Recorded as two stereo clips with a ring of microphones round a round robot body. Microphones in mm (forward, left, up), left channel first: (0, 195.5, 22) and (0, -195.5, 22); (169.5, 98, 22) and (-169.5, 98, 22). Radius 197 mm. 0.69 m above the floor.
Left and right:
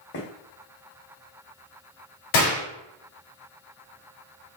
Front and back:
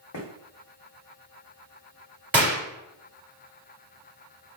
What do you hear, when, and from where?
0.1 s footsteps: 30° left, 1.6 m
2.3 s a gunshot: 95° left, 1.5 m